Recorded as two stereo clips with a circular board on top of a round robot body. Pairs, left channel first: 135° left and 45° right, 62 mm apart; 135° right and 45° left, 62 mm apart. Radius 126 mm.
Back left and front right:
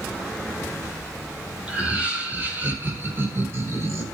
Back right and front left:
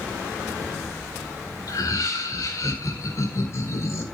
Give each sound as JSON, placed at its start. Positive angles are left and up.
{"t": 1.7, "sound": "laughter", "azimuth_deg": -115, "distance_m": 5.0}